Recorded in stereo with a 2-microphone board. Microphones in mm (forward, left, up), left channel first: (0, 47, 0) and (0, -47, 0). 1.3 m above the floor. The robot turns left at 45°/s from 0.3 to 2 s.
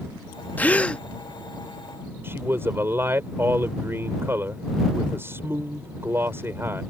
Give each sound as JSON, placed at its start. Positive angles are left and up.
{"t": 0.6, "sound": "a gasp", "side_deg": 20}
{"t": 2.2, "sound": "a man speaking", "side_deg": -25}